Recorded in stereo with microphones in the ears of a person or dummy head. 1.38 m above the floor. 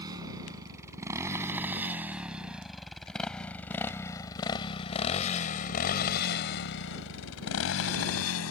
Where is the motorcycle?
25° right (ahead or behind); by 8.5 s 80° left.